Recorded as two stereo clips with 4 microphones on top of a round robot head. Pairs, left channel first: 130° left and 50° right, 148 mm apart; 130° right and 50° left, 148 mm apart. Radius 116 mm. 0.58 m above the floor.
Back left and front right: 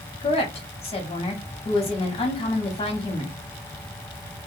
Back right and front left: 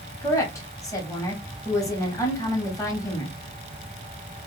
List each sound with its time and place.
0.2 s a woman speaking: 165° left, 1.0 m